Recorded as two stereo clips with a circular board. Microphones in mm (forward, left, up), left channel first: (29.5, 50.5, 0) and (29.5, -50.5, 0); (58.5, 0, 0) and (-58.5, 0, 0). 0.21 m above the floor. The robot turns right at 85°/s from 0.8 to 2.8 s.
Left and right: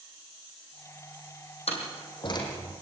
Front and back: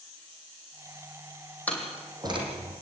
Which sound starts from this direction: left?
A door slam, at 1.7 s.